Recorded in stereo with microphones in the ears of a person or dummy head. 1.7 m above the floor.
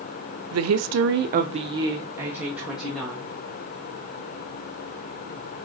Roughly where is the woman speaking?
Right.